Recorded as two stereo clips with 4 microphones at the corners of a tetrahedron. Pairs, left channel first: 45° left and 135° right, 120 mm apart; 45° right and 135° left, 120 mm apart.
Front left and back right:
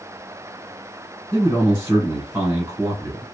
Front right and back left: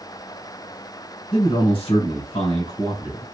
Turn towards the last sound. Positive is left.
turn(degrees=-70)